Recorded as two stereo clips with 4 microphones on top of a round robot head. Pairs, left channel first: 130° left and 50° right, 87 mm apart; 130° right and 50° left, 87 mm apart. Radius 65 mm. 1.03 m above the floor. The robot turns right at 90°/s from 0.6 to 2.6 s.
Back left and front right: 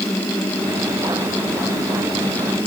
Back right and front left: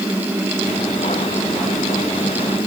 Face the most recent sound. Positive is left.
No sound to turn to.